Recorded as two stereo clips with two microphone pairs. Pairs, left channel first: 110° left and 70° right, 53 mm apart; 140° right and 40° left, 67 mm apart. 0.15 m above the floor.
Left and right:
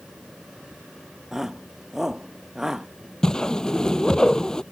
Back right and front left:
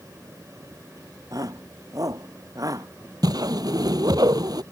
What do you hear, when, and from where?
1.3 s a shout: 15° left; by 2.9 s 10° left
3.2 s a whoosh: 35° left